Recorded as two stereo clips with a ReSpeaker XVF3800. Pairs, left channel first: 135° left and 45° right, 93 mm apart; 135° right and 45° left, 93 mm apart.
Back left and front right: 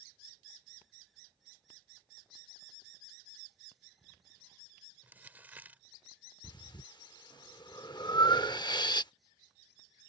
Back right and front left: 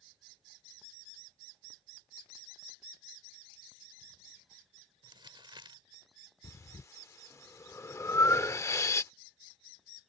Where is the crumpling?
25° left.